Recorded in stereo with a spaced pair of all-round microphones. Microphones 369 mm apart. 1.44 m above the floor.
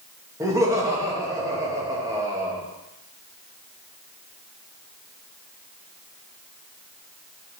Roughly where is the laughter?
Centre.